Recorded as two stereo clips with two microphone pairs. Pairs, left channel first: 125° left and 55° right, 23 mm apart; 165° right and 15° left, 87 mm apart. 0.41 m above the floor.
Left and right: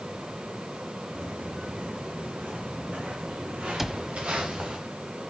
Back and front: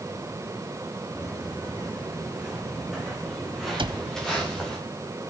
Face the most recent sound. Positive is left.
turn(degrees=20)